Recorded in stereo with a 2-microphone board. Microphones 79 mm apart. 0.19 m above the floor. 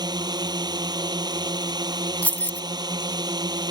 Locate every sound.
0.0 s a drone: 60° right (ahead or behind)
2.2 s keys jangling: 20° left (ahead or behind)